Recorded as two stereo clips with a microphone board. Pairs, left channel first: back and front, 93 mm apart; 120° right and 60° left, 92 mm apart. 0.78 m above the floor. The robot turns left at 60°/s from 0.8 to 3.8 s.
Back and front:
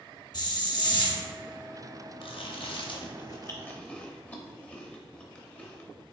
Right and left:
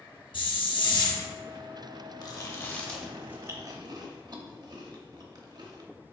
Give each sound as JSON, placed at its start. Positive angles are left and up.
{"t": 0.3, "sound": "a hiss", "azimuth_deg": -145, "distance_m": 0.8}
{"t": 2.2, "sound": "chewing", "azimuth_deg": -160, "distance_m": 0.6}